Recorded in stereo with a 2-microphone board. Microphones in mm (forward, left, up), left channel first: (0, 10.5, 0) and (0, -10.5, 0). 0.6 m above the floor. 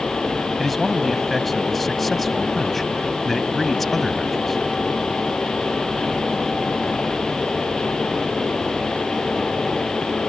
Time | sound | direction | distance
0.6 | a man speaking | 5° left (ahead or behind) | ?